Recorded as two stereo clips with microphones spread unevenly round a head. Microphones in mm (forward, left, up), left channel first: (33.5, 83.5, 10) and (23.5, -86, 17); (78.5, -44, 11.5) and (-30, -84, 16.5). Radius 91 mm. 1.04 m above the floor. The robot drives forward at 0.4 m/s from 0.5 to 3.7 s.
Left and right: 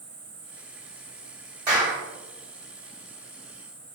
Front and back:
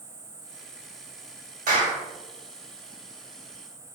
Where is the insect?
120° right, 1.3 m; by 4.0 s 155° right, 2 m.